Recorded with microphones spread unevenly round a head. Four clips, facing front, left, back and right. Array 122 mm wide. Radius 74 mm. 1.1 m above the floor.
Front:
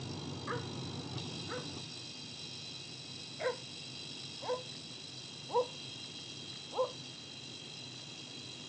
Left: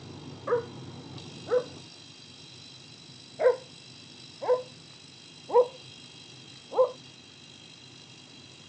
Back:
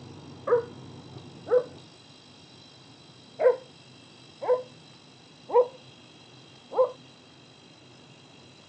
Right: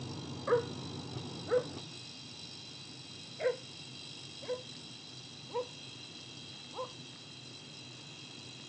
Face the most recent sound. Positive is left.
turn(degrees=145)